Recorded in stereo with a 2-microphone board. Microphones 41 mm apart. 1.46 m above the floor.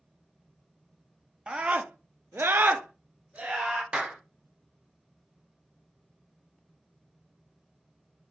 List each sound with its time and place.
1.5 s a scream: 25° right (ahead or behind), 0.7 m; by 3.8 s 30° right (ahead or behind), 1.5 m
3.9 s a clap: 25° right (ahead or behind), 1.0 m